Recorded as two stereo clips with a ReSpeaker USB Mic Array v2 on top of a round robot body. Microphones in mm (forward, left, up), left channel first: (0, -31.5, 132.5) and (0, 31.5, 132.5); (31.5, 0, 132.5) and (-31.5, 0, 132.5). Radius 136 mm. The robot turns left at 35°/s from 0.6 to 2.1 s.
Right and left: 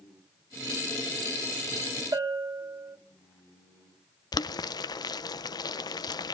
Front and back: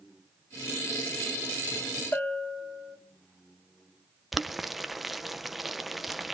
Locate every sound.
2.1 s a bell: 55° left, 1.7 m
4.3 s boiling: 90° right, 0.5 m